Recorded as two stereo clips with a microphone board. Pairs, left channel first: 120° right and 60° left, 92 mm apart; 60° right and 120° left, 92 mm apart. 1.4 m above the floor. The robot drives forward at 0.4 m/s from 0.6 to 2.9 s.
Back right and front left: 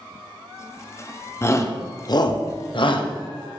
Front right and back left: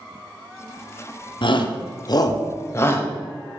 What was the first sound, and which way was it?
A shout, 65° right.